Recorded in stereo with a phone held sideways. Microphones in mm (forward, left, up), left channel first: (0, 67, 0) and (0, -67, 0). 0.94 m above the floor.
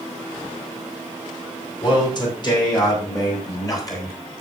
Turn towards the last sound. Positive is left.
turn(degrees=25)  # may be behind; listen again after turning